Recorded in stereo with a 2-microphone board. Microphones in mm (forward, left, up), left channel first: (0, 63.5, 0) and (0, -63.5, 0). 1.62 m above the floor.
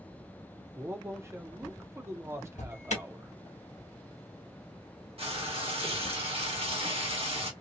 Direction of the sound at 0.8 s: 20° right (ahead or behind).